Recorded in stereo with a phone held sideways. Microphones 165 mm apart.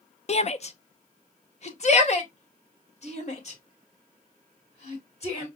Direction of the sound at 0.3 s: 40° left (ahead or behind).